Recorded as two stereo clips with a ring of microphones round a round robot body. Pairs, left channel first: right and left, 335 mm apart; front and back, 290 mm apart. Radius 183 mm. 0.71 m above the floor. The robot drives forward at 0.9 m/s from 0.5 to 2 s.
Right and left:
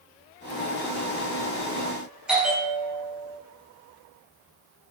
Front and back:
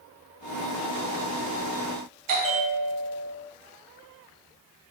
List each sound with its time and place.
2.3 s a bell: straight behind, 2.5 m